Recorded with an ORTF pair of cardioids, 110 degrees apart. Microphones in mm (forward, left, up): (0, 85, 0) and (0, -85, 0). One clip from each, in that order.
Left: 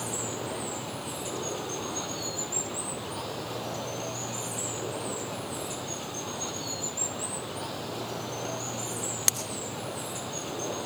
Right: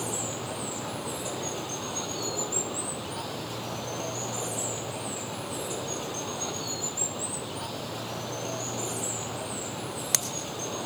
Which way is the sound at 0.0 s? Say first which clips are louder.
Right 1 dB; 10° right.